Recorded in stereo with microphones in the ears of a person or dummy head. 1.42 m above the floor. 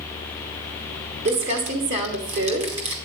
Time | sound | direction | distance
1.2 | crumpling | 40° right (ahead or behind) | 1.5 m